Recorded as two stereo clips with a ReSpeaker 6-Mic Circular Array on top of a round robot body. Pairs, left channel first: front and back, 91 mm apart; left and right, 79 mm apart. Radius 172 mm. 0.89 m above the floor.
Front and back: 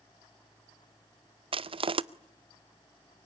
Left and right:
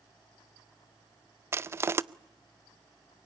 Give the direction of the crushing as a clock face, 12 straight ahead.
5 o'clock.